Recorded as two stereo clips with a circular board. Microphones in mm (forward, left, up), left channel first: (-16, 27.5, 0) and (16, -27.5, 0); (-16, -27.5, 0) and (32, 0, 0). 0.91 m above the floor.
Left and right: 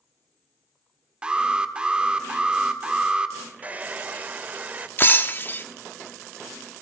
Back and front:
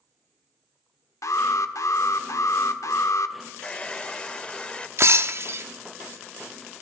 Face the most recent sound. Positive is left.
turn(degrees=65)